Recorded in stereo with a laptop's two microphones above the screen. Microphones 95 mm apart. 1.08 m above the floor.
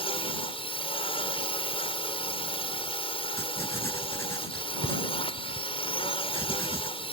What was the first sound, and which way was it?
A drone, 75° left (ahead or behind).